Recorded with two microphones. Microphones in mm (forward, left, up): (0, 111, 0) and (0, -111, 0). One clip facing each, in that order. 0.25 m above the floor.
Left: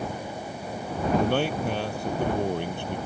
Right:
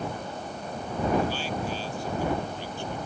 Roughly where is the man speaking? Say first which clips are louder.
Left 5 dB; left.